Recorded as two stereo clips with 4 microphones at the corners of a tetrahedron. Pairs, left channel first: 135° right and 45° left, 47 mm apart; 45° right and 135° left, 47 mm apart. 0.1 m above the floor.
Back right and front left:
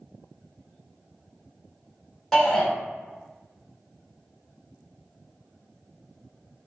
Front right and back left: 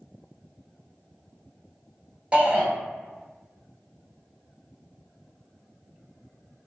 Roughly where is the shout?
Behind left.